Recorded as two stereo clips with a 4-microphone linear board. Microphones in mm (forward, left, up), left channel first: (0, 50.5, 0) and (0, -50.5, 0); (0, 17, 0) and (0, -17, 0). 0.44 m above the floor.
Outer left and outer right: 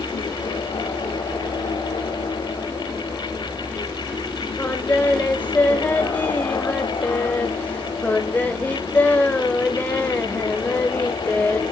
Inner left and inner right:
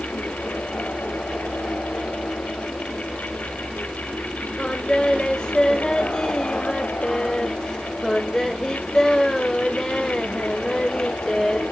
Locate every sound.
4.6 s singing: 15° left (ahead or behind), 1.5 m